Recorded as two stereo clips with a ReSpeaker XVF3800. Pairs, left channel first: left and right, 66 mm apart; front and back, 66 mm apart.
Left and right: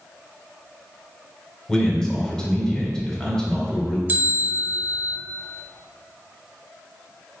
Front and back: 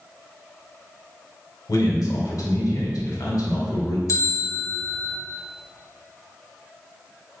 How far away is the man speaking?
About 2 m.